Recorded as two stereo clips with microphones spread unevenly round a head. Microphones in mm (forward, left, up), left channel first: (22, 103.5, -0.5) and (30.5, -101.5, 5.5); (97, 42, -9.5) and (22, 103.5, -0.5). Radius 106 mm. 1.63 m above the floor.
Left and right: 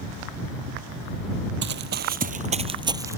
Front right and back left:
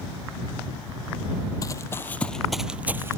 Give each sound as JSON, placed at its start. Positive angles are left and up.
{"t": 1.6, "sound": "running footsteps", "azimuth_deg": -100}